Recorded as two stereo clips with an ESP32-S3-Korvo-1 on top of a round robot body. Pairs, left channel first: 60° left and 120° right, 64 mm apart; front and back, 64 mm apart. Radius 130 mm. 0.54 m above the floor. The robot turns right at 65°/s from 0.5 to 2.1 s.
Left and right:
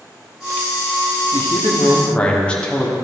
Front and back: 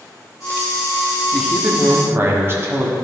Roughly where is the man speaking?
Left.